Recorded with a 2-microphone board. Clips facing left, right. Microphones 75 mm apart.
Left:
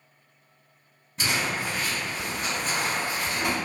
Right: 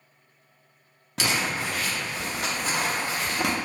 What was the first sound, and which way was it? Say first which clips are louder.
Crumpling: right 1 dB; 85° right.